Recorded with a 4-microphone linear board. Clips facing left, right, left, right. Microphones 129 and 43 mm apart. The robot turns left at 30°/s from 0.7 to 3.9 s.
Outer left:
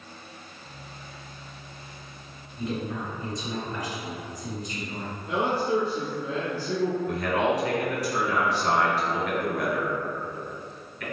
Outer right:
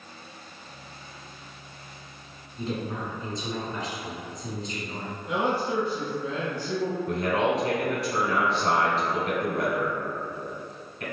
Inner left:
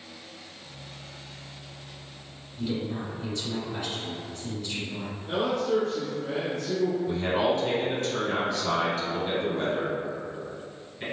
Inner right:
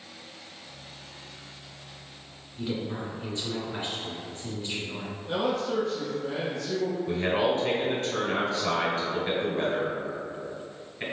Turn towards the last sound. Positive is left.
turn(degrees=-25)  # may be behind; listen again after turning